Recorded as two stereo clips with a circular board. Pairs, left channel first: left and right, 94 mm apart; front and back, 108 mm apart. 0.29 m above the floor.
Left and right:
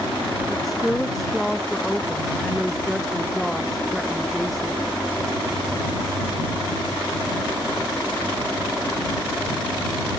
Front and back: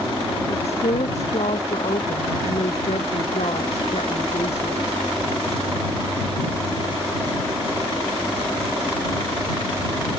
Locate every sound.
0.5 s a woman speaking: straight ahead